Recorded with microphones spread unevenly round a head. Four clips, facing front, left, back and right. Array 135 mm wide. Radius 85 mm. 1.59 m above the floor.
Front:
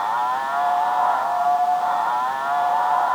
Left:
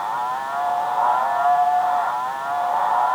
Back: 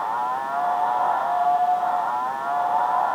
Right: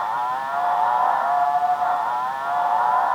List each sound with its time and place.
Only background noise.